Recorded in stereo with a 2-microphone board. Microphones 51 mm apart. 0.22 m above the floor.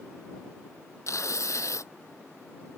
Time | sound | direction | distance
1.1 | tearing paper | 65° left (ahead or behind) | ?